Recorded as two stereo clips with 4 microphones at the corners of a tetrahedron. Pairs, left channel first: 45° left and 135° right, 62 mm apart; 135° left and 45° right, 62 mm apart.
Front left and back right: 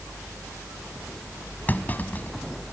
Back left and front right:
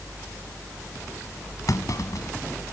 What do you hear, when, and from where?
1.7 s a clunk: 105° left